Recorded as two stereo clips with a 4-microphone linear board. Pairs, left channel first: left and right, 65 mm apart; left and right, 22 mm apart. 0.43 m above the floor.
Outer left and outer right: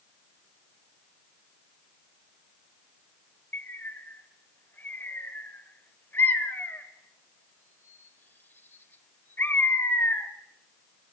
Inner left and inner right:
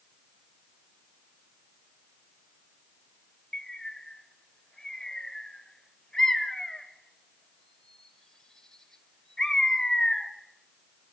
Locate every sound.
3.5 s a bird: 35° left (ahead or behind), 1.6 m